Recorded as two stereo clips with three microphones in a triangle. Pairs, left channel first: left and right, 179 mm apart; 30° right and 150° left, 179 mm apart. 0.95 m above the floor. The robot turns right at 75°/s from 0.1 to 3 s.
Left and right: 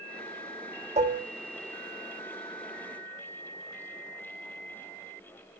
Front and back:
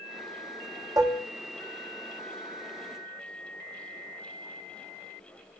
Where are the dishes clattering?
140° right, 0.9 m; by 1.3 s 115° right, 0.9 m.